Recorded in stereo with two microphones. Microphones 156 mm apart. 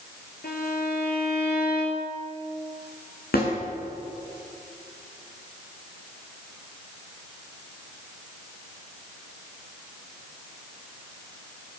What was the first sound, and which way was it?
A violin, 80° left.